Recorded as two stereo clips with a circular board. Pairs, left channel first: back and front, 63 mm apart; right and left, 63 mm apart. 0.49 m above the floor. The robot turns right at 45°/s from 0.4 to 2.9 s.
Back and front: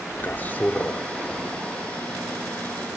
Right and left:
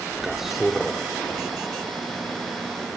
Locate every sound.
0.2 s a man speaking: 170° left, 1.4 m; by 1.0 s 160° right, 1.4 m